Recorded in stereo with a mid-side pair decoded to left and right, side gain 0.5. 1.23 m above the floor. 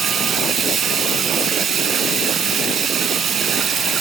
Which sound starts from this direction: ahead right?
Running water, at 0.0 s.